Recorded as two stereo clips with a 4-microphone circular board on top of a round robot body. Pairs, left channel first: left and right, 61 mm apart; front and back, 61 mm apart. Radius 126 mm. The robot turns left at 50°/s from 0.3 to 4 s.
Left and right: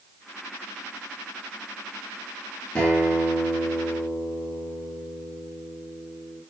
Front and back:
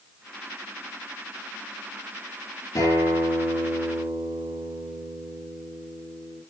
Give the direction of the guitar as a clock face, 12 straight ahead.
11 o'clock.